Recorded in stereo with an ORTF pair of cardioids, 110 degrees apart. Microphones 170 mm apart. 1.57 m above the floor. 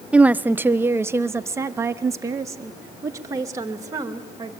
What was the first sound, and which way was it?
A woman speaking, 5° right.